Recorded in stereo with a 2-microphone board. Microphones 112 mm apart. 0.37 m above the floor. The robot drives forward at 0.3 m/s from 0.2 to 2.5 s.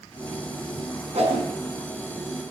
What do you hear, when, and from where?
1.1 s a whoosh: 65° right (ahead or behind), 4 m